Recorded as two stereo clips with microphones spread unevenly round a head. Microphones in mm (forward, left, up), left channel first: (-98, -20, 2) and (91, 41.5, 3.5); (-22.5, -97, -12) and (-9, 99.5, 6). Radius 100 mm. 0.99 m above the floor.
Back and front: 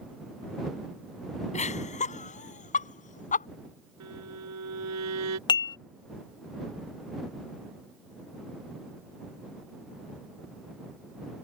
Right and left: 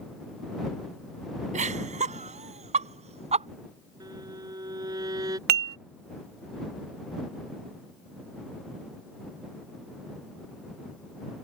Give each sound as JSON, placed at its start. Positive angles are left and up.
{"t": 1.5, "sound": "laughter", "azimuth_deg": 140}
{"t": 4.0, "sound": "a violin", "azimuth_deg": 15}
{"t": 5.5, "sound": "dishes clattering", "azimuth_deg": 130}